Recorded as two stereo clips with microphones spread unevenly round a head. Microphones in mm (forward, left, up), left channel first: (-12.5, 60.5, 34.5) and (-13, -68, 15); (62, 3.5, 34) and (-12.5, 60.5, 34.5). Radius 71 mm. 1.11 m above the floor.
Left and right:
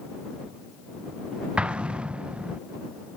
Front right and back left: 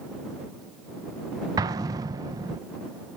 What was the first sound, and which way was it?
An explosion, 170° right.